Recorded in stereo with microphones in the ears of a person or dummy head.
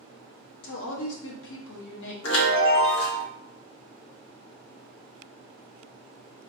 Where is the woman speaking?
70° left (ahead or behind), 1.1 m.